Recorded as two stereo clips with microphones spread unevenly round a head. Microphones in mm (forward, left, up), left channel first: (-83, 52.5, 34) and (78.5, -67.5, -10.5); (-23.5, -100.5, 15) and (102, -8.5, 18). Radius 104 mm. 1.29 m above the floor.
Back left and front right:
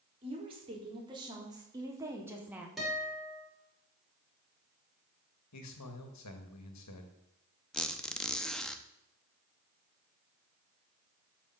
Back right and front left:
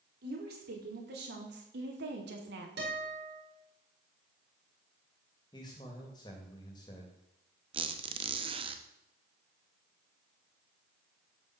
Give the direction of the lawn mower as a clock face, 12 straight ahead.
No lawn mower in this recording.